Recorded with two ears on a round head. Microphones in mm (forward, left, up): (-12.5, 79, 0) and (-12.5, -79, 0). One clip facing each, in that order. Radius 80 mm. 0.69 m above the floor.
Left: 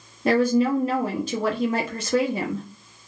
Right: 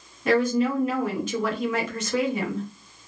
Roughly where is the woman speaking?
Left.